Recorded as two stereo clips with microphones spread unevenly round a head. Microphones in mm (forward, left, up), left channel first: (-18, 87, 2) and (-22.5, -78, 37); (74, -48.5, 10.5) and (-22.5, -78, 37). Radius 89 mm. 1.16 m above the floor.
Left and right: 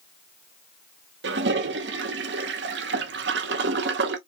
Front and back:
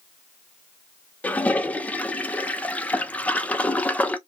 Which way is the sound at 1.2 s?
60° right.